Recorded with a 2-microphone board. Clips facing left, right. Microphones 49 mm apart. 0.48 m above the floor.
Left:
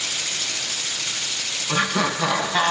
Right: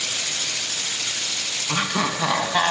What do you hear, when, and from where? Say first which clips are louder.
1.7 s laughter: left 2 dB; 5° right (ahead or behind), 4.5 m